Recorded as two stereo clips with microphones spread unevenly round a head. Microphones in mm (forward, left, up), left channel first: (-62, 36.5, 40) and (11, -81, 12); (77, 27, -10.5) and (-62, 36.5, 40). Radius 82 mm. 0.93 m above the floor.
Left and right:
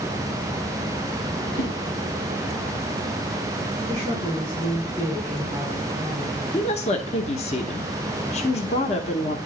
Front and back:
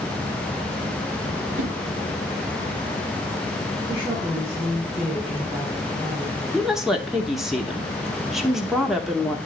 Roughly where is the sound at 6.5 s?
Left.